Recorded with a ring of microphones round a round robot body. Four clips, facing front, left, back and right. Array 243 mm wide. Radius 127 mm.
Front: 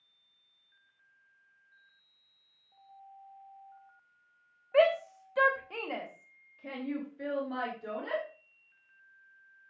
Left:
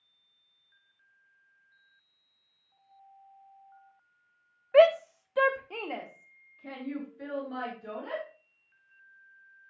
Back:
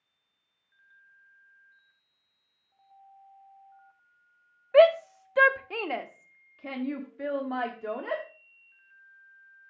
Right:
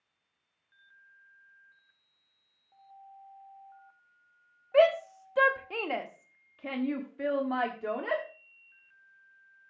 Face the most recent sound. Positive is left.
turn(degrees=-105)